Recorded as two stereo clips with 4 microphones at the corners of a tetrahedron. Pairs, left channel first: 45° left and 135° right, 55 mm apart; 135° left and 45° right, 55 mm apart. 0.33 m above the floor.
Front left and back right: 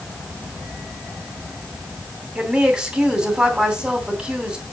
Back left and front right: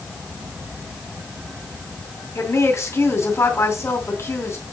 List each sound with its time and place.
2.4 s a woman speaking: 155° left, 2.5 m